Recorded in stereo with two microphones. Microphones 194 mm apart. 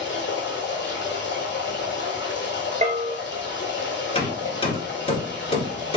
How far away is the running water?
About 1.6 m.